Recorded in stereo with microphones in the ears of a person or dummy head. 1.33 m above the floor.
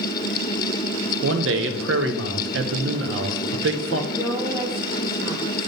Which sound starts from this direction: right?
A man speaking, at 1.2 s.